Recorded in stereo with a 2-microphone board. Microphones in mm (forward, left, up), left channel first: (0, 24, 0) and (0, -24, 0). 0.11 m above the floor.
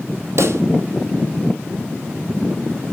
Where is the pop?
70° right (ahead or behind), 1.2 m.